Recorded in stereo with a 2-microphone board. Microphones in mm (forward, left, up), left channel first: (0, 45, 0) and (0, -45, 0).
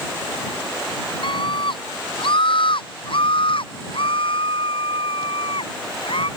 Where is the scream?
65° left (ahead or behind); by 6.3 s 80° left.